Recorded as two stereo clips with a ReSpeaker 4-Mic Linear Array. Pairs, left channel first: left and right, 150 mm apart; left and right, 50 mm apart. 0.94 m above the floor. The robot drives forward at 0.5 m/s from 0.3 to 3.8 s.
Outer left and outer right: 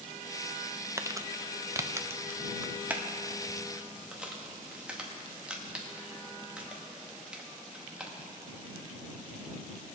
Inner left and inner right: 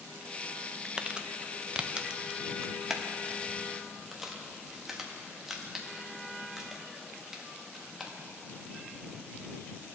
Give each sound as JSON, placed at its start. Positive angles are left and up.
{"t": 1.0, "sound": "crumpling", "side_deg": -20, "distance_m": 0.5}